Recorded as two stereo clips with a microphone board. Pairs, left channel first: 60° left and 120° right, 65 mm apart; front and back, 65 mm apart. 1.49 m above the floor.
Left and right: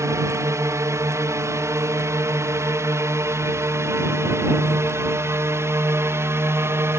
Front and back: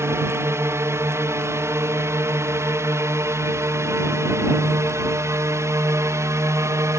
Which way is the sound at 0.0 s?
145° right.